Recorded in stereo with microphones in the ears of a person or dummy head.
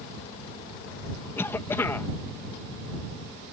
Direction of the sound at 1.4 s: 15° left (ahead or behind).